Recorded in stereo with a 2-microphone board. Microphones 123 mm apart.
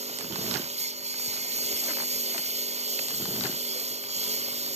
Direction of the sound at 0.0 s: 60° right (ahead or behind).